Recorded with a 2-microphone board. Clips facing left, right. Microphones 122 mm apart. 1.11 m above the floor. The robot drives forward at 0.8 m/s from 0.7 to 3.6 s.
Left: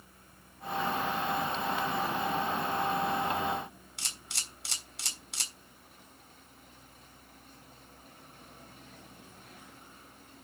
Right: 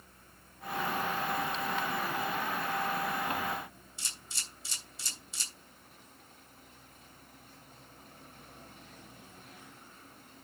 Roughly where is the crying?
No crying in this recording.